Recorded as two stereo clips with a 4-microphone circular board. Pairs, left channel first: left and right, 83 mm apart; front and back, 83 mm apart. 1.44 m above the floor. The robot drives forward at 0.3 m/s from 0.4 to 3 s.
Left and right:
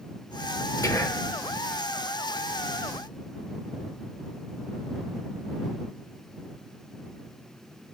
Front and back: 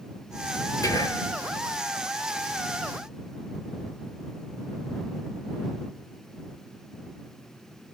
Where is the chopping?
No chopping in this recording.